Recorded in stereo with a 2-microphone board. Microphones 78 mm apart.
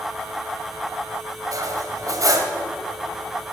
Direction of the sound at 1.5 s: 50° right (ahead or behind).